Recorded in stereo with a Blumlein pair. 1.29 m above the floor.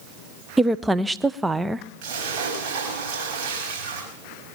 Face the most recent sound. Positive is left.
turn(degrees=-45)